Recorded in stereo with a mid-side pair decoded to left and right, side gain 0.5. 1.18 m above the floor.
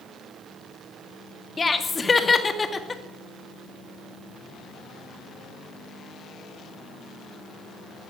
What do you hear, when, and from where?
1.6 s laughter: 25° left, 2.0 m